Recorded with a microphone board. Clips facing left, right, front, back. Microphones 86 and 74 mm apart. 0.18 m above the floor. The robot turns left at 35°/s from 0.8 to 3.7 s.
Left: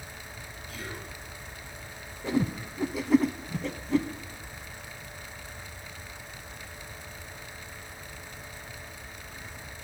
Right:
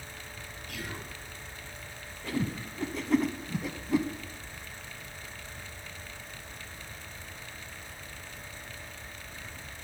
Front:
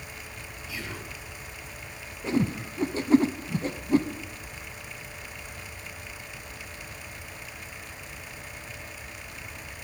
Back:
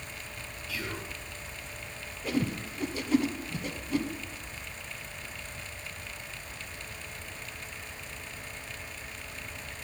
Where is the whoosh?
35° left, 0.6 m; by 4.1 s 15° right, 0.6 m.